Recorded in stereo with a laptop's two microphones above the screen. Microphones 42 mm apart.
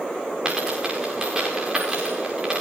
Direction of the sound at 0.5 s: 15° right (ahead or behind).